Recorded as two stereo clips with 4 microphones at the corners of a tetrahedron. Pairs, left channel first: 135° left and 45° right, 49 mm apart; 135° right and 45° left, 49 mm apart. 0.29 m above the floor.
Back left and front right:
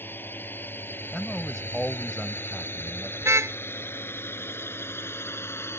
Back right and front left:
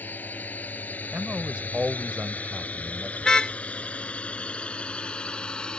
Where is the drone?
175° left; by 5.8 s 155° left.